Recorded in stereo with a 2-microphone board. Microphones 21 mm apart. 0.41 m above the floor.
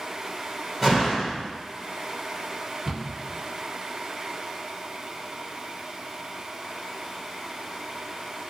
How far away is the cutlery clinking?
No cutlery clinking in this recording.